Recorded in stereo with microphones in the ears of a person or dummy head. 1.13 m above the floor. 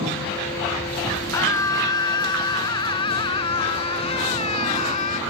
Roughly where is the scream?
Left.